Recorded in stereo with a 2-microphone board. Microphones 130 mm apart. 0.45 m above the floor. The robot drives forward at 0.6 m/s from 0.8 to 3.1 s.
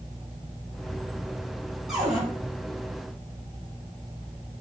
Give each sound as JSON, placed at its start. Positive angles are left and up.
{"t": 1.9, "sound": "a cupboard door", "side_deg": -5, "distance_m": 3.5}